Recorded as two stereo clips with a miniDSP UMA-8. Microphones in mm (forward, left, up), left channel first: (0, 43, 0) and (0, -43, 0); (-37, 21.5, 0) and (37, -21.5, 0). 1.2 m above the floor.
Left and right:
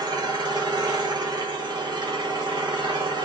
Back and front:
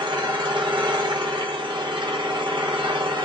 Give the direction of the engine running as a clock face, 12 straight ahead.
2 o'clock.